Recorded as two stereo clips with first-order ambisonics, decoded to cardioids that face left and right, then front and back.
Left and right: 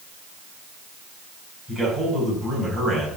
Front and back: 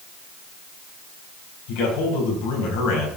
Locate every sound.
1.7 s a man speaking: straight ahead, 5.5 m